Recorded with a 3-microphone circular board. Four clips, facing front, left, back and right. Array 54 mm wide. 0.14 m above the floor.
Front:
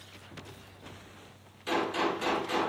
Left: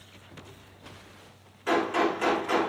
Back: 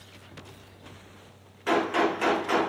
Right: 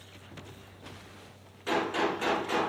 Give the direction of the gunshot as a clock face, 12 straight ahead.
7 o'clock.